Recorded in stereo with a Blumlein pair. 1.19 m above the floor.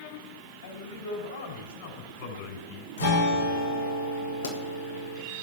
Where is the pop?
70° left, 2.5 m.